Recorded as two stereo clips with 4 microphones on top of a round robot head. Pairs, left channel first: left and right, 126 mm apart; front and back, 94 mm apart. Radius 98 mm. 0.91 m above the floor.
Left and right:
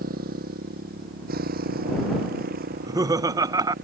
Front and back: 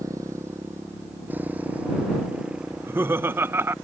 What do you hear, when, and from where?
0.0 s a motorcycle: 110° right; by 3.9 s 90° right
2.7 s laughter: 130° right